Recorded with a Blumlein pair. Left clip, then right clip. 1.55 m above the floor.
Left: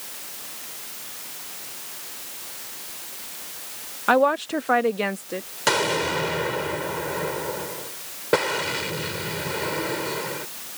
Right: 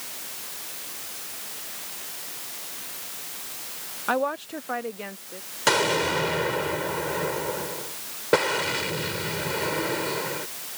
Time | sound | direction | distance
4.1 | a woman speaking | 20° left | ?
5.7 | an explosion | straight ahead | ?